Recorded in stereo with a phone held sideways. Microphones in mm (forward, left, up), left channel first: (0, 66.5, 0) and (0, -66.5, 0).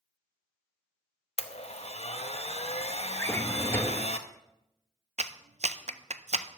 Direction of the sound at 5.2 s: 60° right (ahead or behind).